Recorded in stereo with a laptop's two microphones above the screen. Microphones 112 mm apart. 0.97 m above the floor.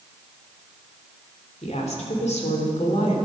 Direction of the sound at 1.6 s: 70° left (ahead or behind).